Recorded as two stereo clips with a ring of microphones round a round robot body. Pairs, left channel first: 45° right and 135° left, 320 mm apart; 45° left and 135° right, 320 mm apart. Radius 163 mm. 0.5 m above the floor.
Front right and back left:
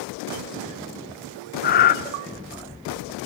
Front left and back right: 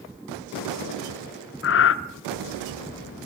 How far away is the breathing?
About 0.7 m.